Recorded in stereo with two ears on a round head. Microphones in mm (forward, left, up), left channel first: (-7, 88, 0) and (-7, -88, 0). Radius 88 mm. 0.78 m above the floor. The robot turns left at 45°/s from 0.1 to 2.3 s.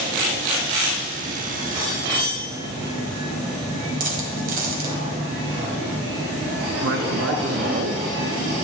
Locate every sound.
4.0 s a dropped coin: 50° right (ahead or behind), 2.0 m
6.8 s a man speaking: 65° right (ahead or behind), 0.9 m